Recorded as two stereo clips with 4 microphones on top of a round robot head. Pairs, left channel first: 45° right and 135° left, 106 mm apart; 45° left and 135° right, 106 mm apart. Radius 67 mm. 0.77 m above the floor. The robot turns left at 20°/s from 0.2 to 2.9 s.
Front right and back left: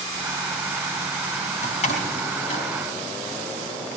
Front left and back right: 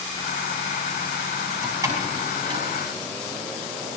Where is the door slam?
65° right, 4.5 m; by 2.6 s 85° right, 4.5 m.